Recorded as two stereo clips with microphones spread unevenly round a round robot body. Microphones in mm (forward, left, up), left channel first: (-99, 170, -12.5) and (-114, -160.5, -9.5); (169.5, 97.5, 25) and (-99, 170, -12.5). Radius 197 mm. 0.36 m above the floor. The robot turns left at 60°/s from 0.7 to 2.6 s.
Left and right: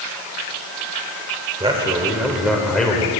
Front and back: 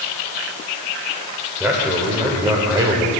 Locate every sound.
1.6 s a man speaking: 130° right, 1.1 m; by 3.1 s 170° left, 1.1 m